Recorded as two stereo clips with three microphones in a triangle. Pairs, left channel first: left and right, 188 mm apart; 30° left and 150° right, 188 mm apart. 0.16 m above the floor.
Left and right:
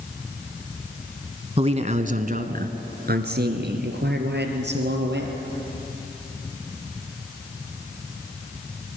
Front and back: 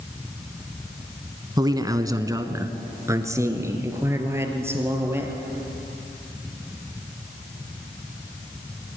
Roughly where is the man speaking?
Right.